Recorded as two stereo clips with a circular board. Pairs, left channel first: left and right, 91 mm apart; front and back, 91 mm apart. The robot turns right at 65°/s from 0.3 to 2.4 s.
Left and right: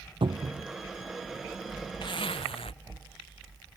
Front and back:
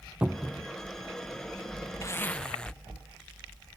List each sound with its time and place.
0.2 s a cupboard door: 105° right; by 0.7 s 80° right
2.0 s a zipper: 55° left; by 2.7 s 80° left